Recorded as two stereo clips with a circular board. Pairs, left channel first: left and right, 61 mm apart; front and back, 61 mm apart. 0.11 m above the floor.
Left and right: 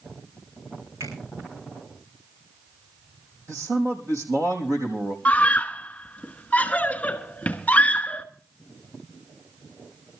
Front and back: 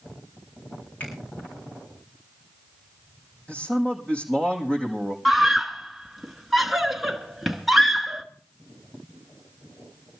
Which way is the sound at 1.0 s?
65° right.